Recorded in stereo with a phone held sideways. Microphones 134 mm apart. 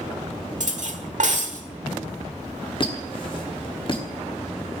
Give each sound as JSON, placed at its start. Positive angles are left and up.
{"t": 0.6, "sound": "cutlery clinking", "side_deg": -65, "distance_m": 1.4}
{"t": 2.8, "sound": "a squeak", "side_deg": 40, "distance_m": 1.7}